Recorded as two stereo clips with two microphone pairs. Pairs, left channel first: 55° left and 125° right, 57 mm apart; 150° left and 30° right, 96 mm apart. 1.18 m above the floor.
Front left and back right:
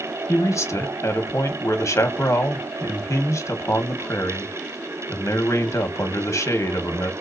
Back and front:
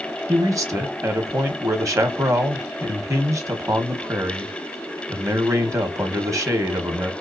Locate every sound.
0.3 s a man speaking: 25° left, 1.3 m